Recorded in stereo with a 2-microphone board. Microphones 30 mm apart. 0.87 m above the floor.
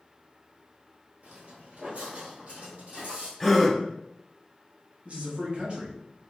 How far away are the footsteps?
About 1.3 m.